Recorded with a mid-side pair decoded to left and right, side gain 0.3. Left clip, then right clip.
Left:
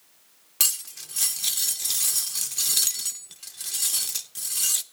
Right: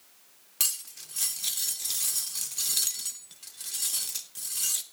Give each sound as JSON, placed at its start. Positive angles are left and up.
{"t": 0.6, "sound": "cutlery clinking", "azimuth_deg": 50, "distance_m": 0.8}